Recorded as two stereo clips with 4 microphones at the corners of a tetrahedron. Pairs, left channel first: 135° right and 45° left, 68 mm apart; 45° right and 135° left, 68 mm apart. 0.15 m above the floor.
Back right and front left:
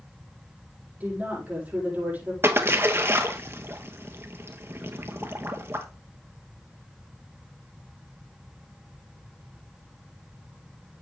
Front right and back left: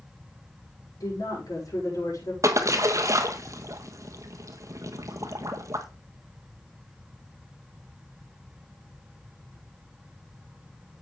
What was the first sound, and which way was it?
A woman speaking, 20° right.